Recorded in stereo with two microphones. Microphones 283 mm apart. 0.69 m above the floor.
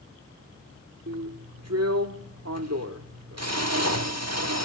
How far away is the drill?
About 1.3 m.